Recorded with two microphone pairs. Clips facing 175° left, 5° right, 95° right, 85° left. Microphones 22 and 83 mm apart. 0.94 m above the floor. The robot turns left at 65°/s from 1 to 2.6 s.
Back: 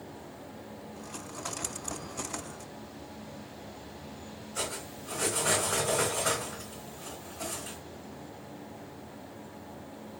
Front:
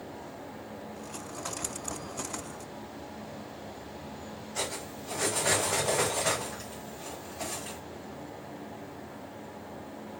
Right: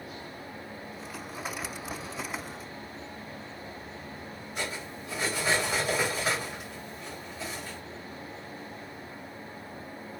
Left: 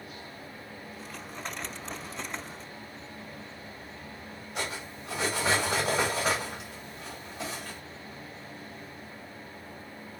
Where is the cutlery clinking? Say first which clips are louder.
Front 1 dB, even; 70° left, 1.5 m.